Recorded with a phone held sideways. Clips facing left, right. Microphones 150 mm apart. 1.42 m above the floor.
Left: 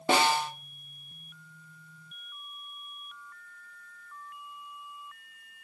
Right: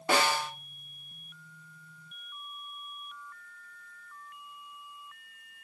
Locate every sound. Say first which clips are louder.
0.1 s a snare drum: left 3 dB; 25° left (ahead or behind), 0.7 m